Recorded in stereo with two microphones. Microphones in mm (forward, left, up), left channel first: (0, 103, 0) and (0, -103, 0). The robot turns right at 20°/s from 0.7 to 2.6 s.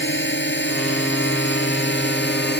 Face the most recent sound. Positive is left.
turn(degrees=55)  # may be behind; listen again after turning